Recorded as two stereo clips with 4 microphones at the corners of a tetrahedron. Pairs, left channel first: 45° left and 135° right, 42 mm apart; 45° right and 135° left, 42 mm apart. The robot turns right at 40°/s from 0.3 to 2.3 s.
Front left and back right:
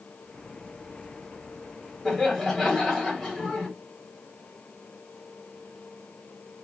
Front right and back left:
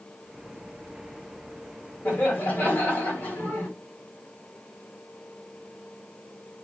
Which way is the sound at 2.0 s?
45° right.